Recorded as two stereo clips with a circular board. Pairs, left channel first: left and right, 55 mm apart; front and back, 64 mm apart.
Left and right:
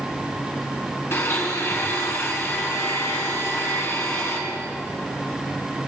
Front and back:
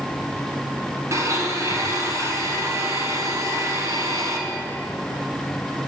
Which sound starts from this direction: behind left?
A blender, at 1.1 s.